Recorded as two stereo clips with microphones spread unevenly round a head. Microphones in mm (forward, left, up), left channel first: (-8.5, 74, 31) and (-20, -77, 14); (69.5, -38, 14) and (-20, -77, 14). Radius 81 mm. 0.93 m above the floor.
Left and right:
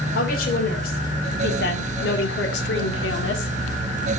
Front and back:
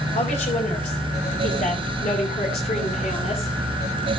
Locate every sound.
0.1 s a woman speaking: 50° left, 3.5 m; by 3.5 s 80° left, 2 m